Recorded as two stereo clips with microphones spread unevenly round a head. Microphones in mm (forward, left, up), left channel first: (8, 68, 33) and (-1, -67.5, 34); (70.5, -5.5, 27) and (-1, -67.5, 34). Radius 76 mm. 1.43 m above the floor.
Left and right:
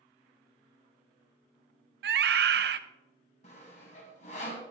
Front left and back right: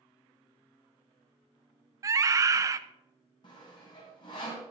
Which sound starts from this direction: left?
Sawing, at 3.4 s.